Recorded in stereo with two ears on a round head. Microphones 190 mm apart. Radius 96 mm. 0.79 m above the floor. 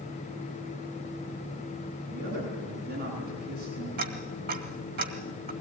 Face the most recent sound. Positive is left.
turn(degrees=-45)  # may be behind; listen again after turning